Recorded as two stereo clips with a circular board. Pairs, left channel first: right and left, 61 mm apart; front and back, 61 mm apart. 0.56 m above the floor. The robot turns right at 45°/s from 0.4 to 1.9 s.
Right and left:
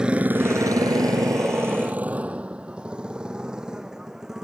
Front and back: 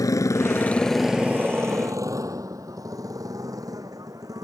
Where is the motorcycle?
10° left; by 4.5 s 170° left.